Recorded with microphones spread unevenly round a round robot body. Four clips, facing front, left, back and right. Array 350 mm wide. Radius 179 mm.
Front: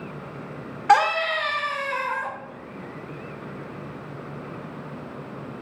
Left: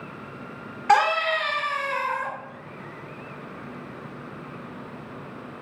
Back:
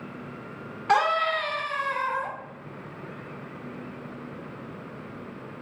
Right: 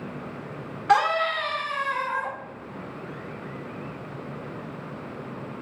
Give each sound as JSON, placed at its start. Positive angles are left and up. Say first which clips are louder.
{"t": 0.9, "sound": "a scream", "louder": "left 1 dB, front 4 dB", "azimuth_deg": 10, "distance_m": 1.7}